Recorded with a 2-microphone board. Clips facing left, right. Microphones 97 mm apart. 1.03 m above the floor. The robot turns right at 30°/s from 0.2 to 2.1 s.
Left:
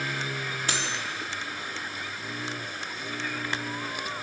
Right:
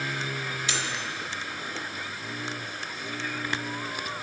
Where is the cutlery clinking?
45° left (ahead or behind), 1.4 m; by 1.0 s 40° left (ahead or behind), 1.4 m.